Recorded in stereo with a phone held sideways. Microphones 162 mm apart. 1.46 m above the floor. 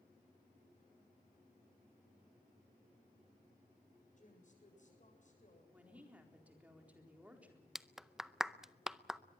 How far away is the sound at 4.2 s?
About 8 m.